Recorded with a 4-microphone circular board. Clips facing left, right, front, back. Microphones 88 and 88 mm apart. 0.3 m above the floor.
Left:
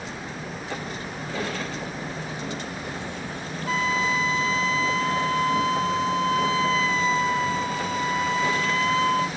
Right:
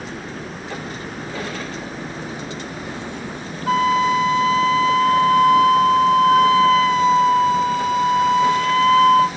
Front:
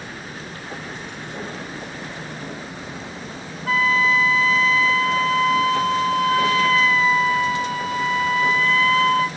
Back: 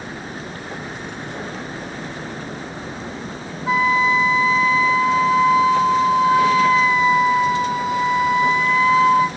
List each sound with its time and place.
0.0 s a helicopter: 110° right; by 9.4 s 135° right
3.7 s a flute: 110° right